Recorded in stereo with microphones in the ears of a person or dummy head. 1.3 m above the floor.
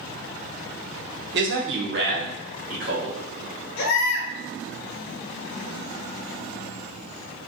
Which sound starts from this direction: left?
A baby crying, at 3.8 s.